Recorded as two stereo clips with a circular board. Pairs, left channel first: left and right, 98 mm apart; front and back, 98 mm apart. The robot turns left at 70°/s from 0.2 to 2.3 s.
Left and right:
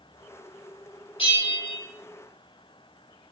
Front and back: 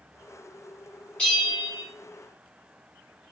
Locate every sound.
1.2 s a bell: 85° left, 1.7 m; by 1.8 s 40° left, 1.7 m